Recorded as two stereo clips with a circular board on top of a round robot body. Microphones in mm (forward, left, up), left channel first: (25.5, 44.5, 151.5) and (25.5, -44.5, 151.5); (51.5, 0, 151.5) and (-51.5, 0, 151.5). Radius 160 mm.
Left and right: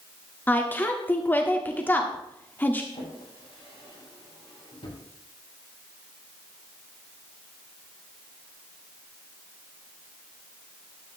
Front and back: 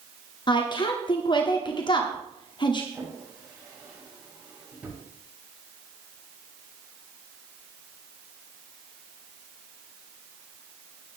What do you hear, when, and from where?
0.5 s a woman speaking: 25° left, 1.6 m
2.9 s a drawer: 100° left, 8 m